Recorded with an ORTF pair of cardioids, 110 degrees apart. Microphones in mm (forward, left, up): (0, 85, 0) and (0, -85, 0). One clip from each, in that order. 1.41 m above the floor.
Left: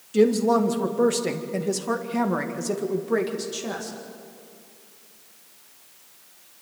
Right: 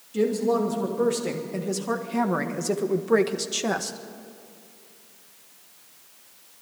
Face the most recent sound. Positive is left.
turn(degrees=-50)